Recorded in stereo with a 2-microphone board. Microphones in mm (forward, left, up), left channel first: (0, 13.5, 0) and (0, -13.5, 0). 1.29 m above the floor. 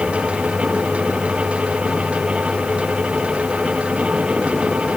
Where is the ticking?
No ticking in this recording.